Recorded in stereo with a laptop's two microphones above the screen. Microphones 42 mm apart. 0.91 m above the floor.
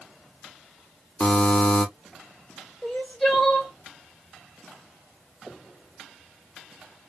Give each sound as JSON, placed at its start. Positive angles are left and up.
{"t": 1.2, "sound": "a buzzer", "side_deg": 30, "distance_m": 2.5}
{"t": 2.8, "sound": "crying", "side_deg": 10, "distance_m": 3.5}